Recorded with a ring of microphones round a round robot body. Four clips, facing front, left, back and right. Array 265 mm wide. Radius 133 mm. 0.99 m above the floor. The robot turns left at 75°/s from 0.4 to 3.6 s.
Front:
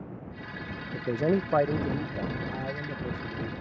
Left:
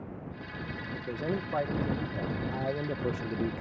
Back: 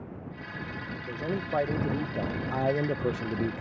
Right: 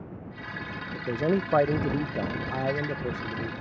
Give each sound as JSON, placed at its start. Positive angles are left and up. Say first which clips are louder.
{"t": 0.9, "sound": "a man speaking", "louder": "right 8 dB, front 8 dB", "azimuth_deg": -20}